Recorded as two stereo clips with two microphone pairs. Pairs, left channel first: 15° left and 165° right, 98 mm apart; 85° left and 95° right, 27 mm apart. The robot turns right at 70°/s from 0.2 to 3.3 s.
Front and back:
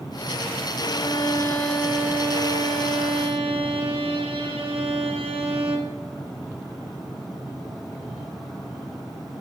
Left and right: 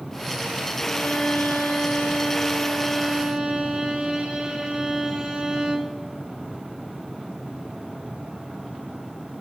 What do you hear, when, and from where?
0.8 s a violin: 35° left, 0.6 m; by 6.0 s 150° right, 0.6 m